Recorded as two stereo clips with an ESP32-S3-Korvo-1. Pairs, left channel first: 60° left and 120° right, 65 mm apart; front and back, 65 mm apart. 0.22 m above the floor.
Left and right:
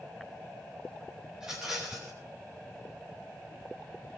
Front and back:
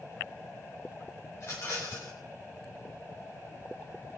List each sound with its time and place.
1.3 s a rattle: 40° right, 7 m